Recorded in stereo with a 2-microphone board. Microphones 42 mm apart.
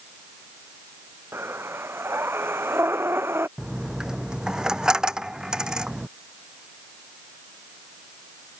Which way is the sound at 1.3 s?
80° right.